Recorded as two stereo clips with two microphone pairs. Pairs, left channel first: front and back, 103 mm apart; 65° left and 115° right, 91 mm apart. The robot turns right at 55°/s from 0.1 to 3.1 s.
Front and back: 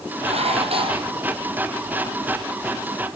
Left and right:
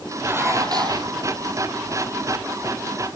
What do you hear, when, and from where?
0.2 s dishes clattering: 175° left, 3 m; by 1.1 s 135° right, 3 m